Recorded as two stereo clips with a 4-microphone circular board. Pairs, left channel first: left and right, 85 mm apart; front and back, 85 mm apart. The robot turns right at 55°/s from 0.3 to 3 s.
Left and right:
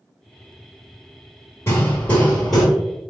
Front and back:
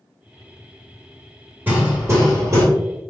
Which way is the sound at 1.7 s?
130° left.